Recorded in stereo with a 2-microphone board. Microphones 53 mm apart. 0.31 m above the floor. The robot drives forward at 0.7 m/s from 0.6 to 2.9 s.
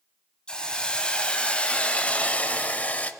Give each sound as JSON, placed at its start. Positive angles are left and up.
{"t": 0.5, "sound": "a hiss", "side_deg": 20, "distance_m": 2.0}